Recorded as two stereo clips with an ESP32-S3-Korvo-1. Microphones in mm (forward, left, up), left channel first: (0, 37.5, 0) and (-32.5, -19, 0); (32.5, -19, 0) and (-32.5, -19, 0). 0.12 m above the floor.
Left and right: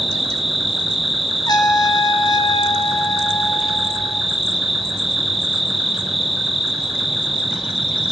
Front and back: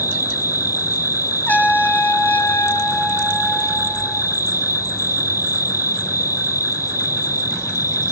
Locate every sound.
0.0 s an insect: 30° right, 3 m
1.5 s a trumpet: 65° left, 2 m